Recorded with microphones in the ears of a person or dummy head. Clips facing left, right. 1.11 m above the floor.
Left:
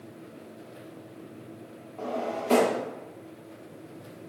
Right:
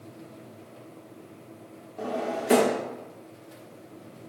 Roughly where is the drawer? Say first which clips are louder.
Right 1 dB; centre.